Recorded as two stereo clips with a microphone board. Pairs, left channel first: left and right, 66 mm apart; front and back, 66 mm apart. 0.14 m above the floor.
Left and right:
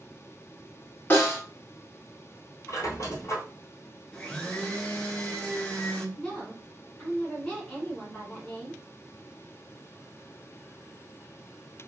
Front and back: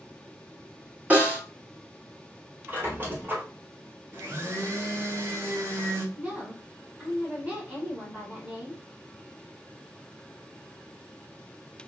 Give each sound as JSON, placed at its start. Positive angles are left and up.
{"t": 1.1, "sound": "a snare drum", "azimuth_deg": 135, "distance_m": 1.4}
{"t": 2.7, "sound": "a squeak", "azimuth_deg": 125, "distance_m": 1.3}
{"t": 4.1, "sound": "a blender", "azimuth_deg": 160, "distance_m": 0.7}
{"t": 6.2, "sound": "a woman speaking", "azimuth_deg": 150, "distance_m": 1.2}